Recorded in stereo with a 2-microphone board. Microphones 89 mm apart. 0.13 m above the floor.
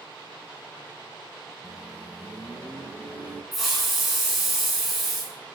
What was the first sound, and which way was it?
A microwave, 15° left (ahead or behind).